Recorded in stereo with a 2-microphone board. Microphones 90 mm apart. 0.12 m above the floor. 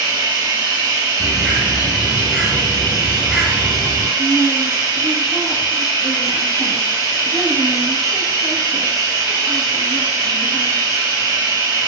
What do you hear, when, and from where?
0.0 s running water: 30° right (ahead or behind), 1.5 m
1.2 s a bird: 5° right (ahead or behind), 0.7 m
4.2 s a woman speaking: 45° right (ahead or behind), 1.5 m